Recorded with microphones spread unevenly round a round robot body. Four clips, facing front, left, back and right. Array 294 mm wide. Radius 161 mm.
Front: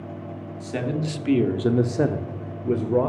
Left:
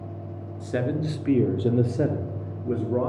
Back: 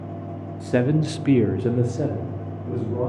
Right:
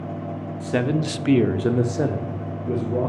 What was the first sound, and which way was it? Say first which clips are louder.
A man speaking: right 4 dB, back 7 dB; 150° right.